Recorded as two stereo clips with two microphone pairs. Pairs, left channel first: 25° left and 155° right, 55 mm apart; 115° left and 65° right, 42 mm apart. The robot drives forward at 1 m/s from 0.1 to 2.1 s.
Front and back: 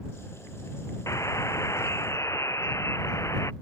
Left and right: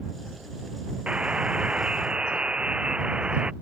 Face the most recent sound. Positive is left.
turn(degrees=0)